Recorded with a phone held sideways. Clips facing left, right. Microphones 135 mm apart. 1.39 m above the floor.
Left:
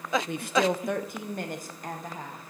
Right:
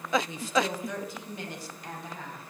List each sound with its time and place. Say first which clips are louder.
0.3 s a woman speaking: left 3 dB; 60° left (ahead or behind), 0.7 m; by 2.4 s 40° left (ahead or behind), 1.7 m